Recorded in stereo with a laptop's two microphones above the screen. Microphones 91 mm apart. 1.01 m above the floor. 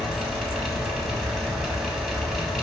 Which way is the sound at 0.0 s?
5° right (ahead or behind).